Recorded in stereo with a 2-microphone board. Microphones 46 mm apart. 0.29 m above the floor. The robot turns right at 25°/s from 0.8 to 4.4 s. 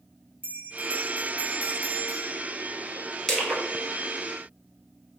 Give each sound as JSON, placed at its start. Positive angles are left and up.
{"t": 0.4, "sound": "a bell", "azimuth_deg": -105, "distance_m": 1.0}
{"t": 3.3, "sound": "crushing", "side_deg": 5, "distance_m": 2.0}